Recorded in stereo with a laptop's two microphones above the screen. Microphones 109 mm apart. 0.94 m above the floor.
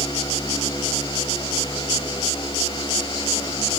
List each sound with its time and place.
0.0 s a fan: 45° left (ahead or behind), 5.5 m